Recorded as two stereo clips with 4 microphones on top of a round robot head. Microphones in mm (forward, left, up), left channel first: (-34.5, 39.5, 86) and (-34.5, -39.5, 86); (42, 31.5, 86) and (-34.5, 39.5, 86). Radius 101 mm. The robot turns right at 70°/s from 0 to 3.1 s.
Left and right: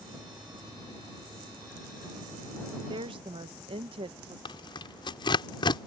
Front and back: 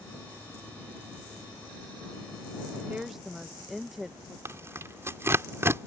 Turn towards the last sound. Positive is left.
turn(degrees=115)